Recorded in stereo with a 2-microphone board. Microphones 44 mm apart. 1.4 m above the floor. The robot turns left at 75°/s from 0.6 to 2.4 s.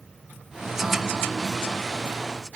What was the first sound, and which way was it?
Only background noise.